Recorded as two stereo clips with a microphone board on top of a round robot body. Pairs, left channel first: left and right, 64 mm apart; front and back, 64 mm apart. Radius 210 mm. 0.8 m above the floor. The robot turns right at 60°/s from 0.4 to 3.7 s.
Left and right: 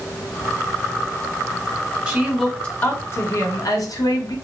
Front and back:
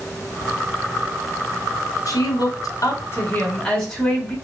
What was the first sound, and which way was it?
A woman speaking, 15° right.